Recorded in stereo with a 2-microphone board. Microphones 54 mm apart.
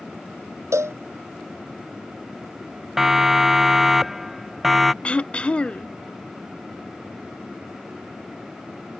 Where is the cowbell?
60° right (ahead or behind).